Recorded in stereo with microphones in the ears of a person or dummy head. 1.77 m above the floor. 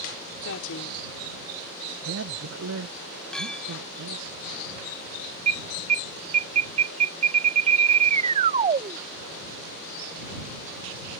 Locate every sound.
0.5 s a woman speaking: 70° left (ahead or behind)
2.0 s a man speaking: 80° right
3.3 s a clink: centre (ahead or behind)
5.5 s an alarm: 30° right (ahead or behind)